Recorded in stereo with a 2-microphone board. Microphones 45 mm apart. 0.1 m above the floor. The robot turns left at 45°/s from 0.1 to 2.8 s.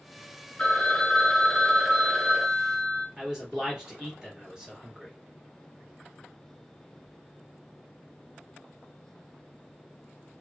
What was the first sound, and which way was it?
A phone ringing, 25° left (ahead or behind).